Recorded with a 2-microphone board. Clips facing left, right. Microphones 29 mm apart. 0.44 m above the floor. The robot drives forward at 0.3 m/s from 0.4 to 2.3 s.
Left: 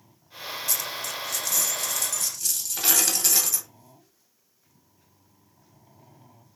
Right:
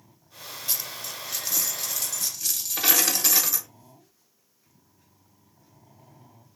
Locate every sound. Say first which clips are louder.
0.7 s a dropped coin: left 1 dB; 30° right (ahead or behind), 0.5 m; by 3.7 s 15° right (ahead or behind), 1.0 m